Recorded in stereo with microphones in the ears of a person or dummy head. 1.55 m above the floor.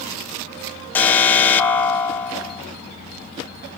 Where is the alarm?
5° left (ahead or behind), 0.9 m.